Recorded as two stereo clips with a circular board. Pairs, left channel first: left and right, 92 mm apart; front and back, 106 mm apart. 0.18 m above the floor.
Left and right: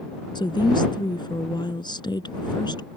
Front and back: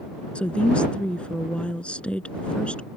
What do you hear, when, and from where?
0.3 s a woman speaking: 75° left